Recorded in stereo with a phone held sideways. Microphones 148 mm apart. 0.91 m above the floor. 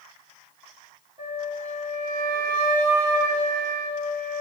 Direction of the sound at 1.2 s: 30° right (ahead or behind).